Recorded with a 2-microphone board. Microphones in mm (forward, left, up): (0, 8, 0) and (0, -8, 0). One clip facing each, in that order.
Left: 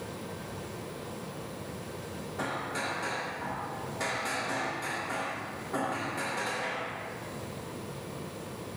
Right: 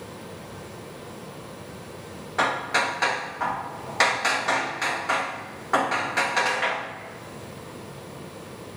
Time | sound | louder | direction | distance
2.4 | hammering | right 11 dB | 75° right (ahead or behind) | 0.7 m